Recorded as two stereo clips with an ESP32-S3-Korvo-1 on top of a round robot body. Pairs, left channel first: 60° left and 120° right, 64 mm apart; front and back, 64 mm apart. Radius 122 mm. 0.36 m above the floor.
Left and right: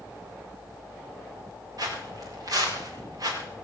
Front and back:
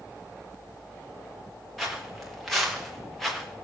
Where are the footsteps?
90° right, 7 m; by 3.5 s 85° right, 4.5 m.